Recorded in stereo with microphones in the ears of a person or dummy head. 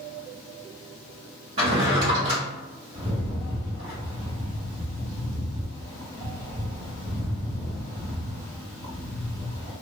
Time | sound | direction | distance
1.6 | a drawer | 35° right (ahead or behind) | 1.1 m
2.9 | a rattle | 40° right (ahead or behind) | 1.0 m